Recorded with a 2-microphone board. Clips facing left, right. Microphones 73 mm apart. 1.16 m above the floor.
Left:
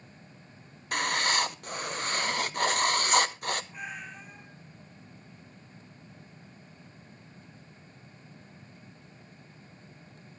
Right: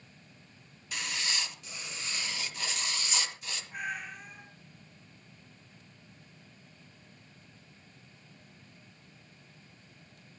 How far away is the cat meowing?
About 4 m.